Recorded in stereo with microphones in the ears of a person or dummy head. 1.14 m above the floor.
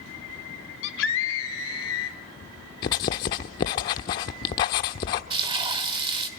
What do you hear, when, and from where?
0.8 s a scream: 75° left (ahead or behind), 3.5 m; by 2.2 s 80° left, 4.5 m
2.8 s writing: 20° left (ahead or behind), 0.8 m
5.3 s frying: 30° right (ahead or behind), 1.7 m